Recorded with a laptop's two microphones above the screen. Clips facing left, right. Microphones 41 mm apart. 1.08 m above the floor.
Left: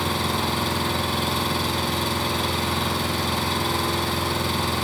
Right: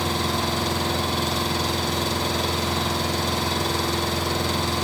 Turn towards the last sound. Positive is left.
turn(degrees=10)  # may be behind; listen again after turning